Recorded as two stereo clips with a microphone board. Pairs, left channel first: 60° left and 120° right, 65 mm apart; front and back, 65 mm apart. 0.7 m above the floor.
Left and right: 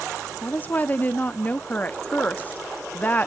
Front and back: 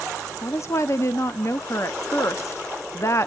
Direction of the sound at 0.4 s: 10° left.